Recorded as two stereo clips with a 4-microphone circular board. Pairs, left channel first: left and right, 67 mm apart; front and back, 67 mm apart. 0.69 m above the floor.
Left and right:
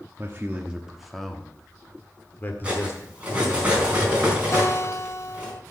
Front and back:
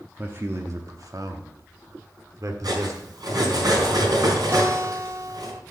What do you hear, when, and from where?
0.2 s a man speaking: 135° right, 1.0 m; by 3.6 s 135° left, 2.5 m
2.6 s cutlery clinking: 165° right, 4.5 m
4.5 s a guitar: 130° left, 0.8 m